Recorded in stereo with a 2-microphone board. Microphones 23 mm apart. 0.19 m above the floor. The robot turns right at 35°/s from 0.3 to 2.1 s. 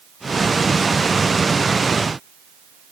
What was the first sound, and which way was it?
Only background noise.